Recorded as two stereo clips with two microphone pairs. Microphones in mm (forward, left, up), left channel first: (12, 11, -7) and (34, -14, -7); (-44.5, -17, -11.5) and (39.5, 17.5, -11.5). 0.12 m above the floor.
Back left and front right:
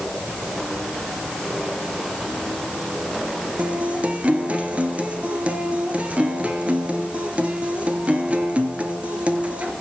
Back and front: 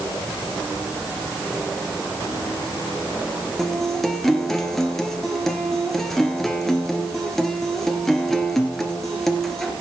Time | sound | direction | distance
3.6 | a guitar | 75° right | 1.9 m